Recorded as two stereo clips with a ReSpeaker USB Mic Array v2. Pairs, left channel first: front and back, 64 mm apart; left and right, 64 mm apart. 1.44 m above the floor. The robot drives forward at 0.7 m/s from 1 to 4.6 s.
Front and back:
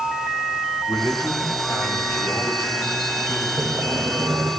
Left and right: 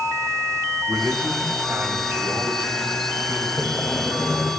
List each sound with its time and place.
0.9 s a man speaking: 30° right, 5 m; by 3.5 s 45° right, 4 m
3.6 s sawing: 155° left, 2.5 m; by 4.5 s 160° left, 3 m